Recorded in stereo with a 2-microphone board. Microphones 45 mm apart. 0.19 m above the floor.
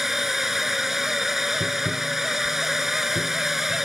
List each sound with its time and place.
0.0 s a drone: 5° right (ahead or behind)
1.6 s tapping: 45° right (ahead or behind)